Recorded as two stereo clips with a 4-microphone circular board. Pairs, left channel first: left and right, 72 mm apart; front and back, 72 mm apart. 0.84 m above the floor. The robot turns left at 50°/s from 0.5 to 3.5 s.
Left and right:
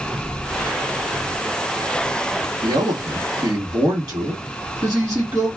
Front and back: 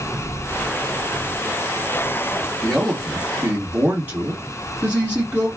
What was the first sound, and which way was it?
A man speaking, 75° right.